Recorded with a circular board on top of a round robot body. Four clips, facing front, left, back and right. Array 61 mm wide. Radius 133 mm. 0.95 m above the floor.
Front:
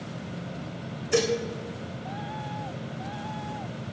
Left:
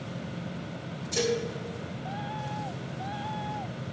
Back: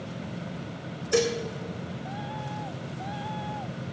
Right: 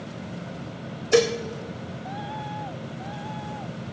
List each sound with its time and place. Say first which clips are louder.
1.1 s dishes clattering: right 8 dB, even; 95° right, 3 m